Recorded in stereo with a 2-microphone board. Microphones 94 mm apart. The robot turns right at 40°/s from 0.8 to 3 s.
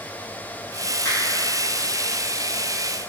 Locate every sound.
1.1 s a finger snap: 30° left (ahead or behind), 1.7 m; by 1.2 s 35° left (ahead or behind), 1.7 m